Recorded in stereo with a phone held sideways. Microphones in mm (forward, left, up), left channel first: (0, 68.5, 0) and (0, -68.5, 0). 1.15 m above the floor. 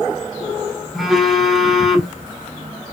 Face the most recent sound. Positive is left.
turn(degrees=0)  # may be behind; listen again after turning